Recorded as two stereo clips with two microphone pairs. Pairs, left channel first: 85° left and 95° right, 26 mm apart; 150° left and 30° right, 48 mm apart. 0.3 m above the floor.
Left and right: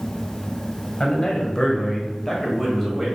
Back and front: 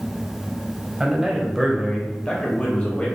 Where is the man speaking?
45° left, 1.2 m; by 3.0 s 175° right, 1.2 m.